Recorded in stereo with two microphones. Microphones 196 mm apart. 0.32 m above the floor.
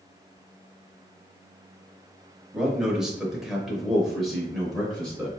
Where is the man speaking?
5° right (ahead or behind), 1.1 m; by 5.3 s centre (ahead or behind), 1.1 m.